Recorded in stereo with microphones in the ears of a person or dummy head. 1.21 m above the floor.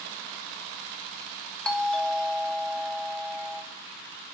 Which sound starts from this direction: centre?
A doorbell, at 1.6 s.